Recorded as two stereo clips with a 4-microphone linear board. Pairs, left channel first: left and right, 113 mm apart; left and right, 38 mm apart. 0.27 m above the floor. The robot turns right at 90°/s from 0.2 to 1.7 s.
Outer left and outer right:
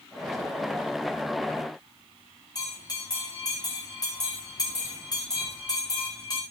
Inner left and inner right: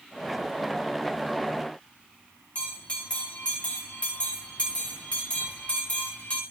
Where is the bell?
35° left (ahead or behind), 8.5 m.